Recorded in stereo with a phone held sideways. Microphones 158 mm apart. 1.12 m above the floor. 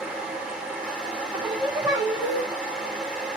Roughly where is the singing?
Centre.